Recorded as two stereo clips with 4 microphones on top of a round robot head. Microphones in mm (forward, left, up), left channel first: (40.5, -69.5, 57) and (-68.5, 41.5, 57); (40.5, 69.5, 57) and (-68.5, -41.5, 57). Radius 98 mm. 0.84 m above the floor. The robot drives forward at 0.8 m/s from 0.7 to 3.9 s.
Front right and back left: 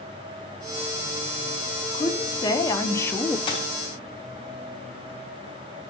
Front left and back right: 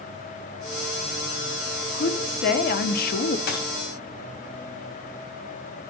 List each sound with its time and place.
1.9 s a woman speaking: 15° left, 1.9 m; by 3.4 s 35° left, 0.9 m
3.5 s a dropped coin: 20° left, 3 m